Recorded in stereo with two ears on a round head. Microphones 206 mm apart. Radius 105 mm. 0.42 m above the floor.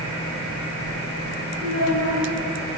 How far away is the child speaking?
About 3 m.